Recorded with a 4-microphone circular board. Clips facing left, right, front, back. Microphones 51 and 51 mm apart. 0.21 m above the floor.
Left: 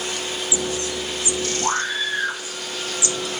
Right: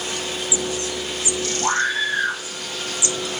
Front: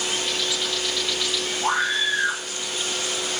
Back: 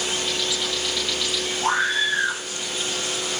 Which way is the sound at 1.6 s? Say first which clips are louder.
Right 5 dB, back 1 dB; 105° right.